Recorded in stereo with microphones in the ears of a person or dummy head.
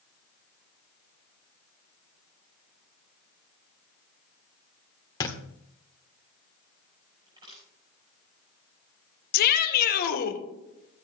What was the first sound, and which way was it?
A thud, 20° left (ahead or behind).